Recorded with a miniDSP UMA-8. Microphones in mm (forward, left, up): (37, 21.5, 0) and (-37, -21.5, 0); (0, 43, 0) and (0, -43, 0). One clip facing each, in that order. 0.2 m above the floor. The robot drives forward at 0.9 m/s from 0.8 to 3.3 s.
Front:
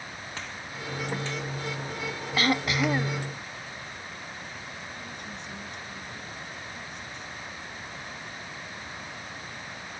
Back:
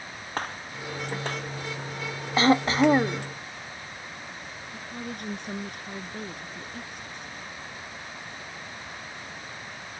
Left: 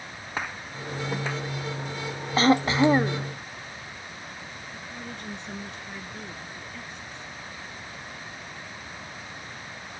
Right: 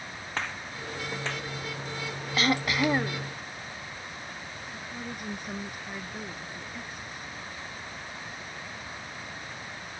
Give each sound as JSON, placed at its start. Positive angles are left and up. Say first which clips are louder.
{"t": 0.4, "sound": "a gunshot", "louder": "back 8 dB, left 2 dB", "azimuth_deg": 170}
{"t": 2.4, "sound": "throat clearing", "louder": "back 6 dB, left 7 dB", "azimuth_deg": 145}
{"t": 4.7, "sound": "a woman speaking", "louder": "back 4 dB, right 1 dB", "azimuth_deg": -170}